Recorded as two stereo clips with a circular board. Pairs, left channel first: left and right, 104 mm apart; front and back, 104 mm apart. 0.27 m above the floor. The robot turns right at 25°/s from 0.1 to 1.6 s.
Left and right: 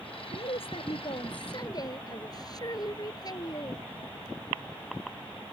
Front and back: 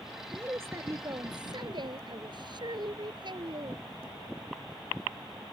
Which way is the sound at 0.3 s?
105° left.